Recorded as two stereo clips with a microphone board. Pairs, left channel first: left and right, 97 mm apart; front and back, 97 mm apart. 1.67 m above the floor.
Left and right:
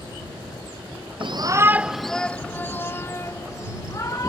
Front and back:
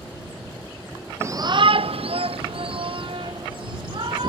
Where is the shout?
120° right; by 4.3 s 145° left.